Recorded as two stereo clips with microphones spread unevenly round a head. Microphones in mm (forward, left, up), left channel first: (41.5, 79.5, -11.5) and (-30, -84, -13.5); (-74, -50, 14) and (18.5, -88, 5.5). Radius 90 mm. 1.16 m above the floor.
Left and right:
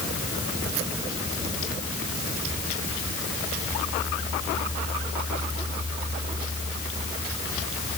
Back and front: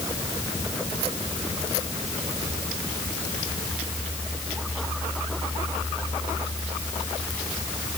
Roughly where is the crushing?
No crushing in this recording.